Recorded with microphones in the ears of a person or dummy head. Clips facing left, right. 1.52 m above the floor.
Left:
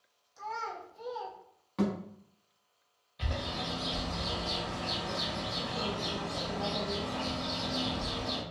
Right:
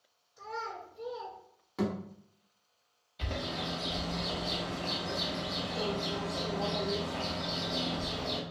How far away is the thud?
About 1.0 m.